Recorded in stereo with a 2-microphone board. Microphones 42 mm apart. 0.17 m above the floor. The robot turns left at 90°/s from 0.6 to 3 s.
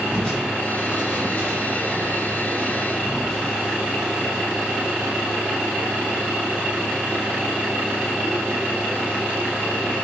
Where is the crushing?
25° left, 3 m; by 4.2 s 170° left, 3 m.